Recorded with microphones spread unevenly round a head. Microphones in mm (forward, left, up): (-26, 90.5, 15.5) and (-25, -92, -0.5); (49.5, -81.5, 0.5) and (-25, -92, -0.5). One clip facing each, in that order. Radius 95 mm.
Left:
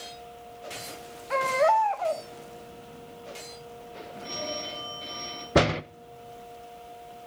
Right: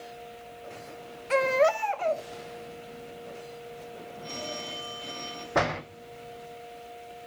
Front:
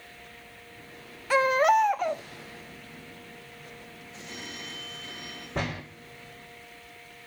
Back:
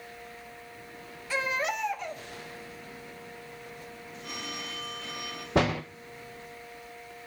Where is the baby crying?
30° right, 0.8 m.